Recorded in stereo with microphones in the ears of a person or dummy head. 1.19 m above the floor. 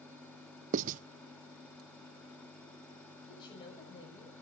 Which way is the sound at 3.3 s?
30° left (ahead or behind).